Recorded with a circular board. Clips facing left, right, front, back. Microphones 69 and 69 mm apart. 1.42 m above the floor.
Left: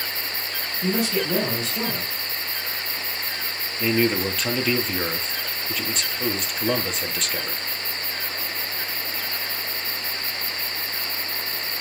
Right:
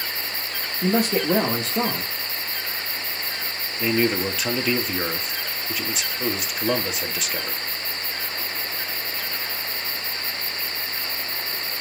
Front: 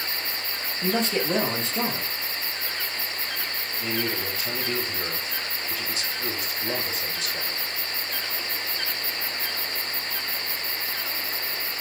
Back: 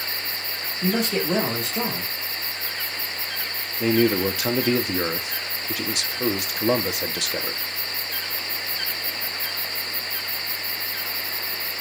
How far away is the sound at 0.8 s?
About 2 m.